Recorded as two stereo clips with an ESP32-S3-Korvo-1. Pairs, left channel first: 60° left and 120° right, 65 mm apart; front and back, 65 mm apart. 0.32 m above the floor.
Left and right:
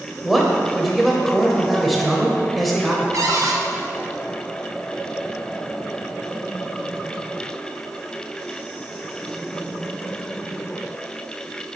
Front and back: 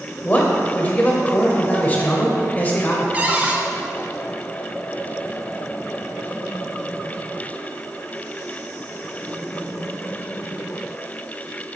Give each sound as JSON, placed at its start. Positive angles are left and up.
{"t": 0.2, "sound": "a man speaking", "azimuth_deg": -30, "distance_m": 1.0}
{"t": 3.1, "sound": "a cupboard door", "azimuth_deg": -120, "distance_m": 0.7}